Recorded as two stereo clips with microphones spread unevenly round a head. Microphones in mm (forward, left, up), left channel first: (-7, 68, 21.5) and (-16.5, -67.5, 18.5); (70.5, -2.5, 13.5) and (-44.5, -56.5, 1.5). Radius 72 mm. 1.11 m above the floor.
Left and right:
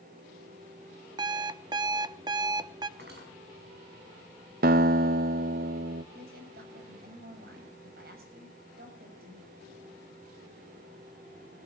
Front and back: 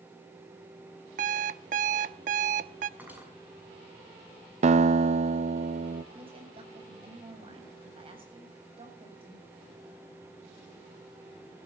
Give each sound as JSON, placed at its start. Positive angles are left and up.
{"t": 1.2, "sound": "an alarm clock", "azimuth_deg": -150, "distance_m": 0.7}
{"t": 3.0, "sound": "cutlery clinking", "azimuth_deg": -75, "distance_m": 6.0}
{"t": 4.6, "sound": "a guitar", "azimuth_deg": -120, "distance_m": 0.6}
{"t": 6.1, "sound": "a woman speaking", "azimuth_deg": -110, "distance_m": 8.0}